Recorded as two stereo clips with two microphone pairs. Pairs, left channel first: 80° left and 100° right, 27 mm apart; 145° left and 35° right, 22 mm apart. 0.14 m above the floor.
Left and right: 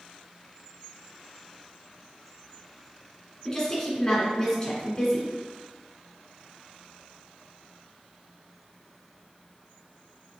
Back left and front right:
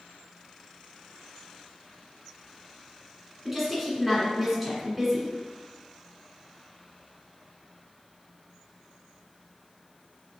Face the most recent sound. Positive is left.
turn(degrees=40)